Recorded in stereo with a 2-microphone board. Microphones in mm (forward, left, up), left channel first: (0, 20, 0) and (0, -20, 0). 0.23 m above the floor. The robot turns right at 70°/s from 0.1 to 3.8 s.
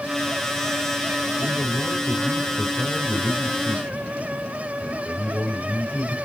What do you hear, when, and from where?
1.4 s a man speaking: 25° right, 5 m; by 6.2 s 140° left, 5 m